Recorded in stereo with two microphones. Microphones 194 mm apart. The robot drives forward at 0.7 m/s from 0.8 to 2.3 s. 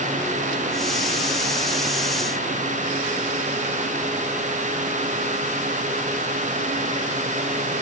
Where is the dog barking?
No dog barking in this recording.